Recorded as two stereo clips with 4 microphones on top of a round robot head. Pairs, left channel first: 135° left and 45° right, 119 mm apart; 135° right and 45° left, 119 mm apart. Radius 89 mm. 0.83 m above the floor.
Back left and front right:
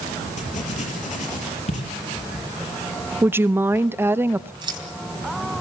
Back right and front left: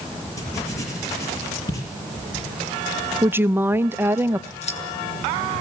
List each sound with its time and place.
0.4 s writing: 160° left, 6 m
3.2 s a woman speaking: straight ahead, 0.7 m
4.6 s scissors: 100° right, 3.5 m